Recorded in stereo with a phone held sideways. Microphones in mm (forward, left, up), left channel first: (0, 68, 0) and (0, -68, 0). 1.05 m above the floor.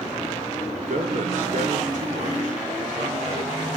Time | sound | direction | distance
0.7 | a man speaking | 80° right | 3.5 m